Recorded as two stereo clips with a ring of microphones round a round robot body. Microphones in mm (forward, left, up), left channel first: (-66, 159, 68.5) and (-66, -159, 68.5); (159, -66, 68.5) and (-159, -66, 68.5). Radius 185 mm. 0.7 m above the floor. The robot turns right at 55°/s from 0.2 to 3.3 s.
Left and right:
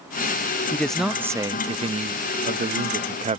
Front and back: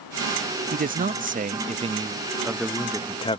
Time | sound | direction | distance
0.7 | a man speaking | 165° left | ?